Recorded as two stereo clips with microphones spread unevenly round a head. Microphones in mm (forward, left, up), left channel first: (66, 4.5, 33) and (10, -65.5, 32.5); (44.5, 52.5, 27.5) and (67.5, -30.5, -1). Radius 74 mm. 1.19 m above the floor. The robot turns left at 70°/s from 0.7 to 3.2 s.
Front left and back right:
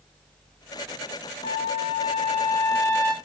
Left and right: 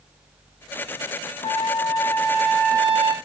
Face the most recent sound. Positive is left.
turn(degrees=-25)